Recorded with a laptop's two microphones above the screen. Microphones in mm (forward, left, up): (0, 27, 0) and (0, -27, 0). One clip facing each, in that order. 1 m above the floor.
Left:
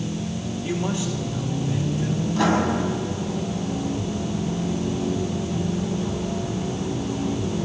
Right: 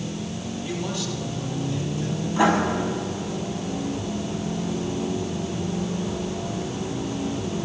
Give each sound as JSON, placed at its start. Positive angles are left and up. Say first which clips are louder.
{"t": 0.6, "sound": "a man speaking", "louder": "left 4 dB", "side_deg": 25, "distance_m": 3.0}
{"t": 2.3, "sound": "writing", "louder": "right 2 dB", "side_deg": -20, "distance_m": 8.0}